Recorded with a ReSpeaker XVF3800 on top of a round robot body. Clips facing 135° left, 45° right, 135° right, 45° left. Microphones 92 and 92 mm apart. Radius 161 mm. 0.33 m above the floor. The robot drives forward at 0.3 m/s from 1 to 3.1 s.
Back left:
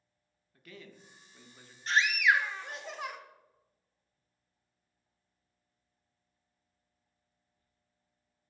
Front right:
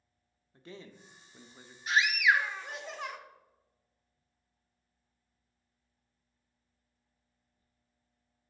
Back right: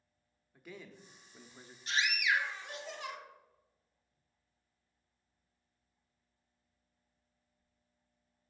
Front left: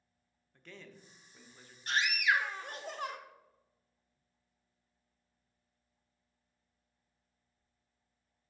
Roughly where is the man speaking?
Ahead right.